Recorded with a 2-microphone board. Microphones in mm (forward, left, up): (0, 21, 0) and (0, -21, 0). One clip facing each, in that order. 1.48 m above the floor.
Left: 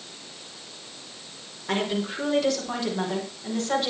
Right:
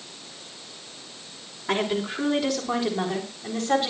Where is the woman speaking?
15° right (ahead or behind), 5 m.